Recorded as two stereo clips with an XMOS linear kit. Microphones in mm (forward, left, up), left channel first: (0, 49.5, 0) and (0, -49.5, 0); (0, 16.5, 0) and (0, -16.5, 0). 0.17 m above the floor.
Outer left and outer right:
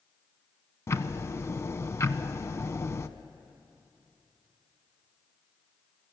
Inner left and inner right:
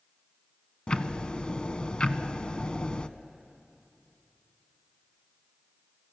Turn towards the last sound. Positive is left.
turn(degrees=30)  # may be behind; listen again after turning